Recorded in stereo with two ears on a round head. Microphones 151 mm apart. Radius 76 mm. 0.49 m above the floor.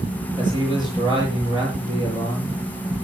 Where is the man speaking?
25° right (ahead or behind), 8.5 m.